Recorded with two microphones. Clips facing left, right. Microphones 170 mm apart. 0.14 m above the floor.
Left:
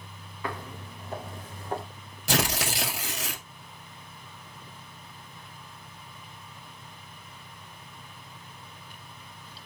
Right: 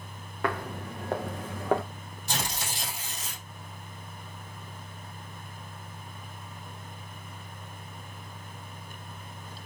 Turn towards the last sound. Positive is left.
turn(degrees=70)  # may be behind; listen again after turning